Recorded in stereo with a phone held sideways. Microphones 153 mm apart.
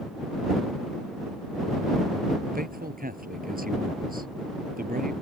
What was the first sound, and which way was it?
A man speaking, 70° right (ahead or behind).